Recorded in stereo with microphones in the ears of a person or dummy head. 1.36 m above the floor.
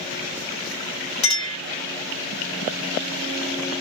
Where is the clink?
30° left (ahead or behind), 1.7 m.